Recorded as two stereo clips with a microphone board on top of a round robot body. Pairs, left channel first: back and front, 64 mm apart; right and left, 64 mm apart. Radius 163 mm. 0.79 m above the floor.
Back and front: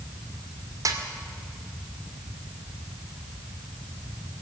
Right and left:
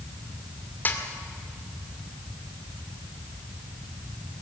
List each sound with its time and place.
0.8 s a snare drum: 30° right, 2.5 m